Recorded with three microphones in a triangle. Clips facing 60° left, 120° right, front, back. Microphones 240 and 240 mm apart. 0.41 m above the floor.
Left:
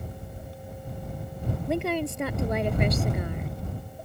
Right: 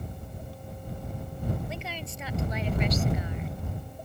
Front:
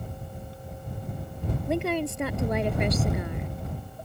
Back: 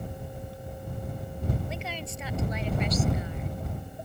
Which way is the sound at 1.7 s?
30° left.